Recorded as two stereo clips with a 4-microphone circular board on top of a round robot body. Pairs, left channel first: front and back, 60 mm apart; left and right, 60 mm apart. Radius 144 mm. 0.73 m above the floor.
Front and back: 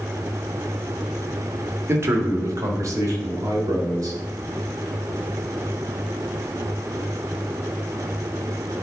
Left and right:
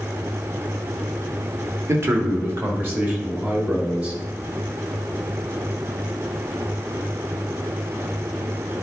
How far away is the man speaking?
About 1.5 m.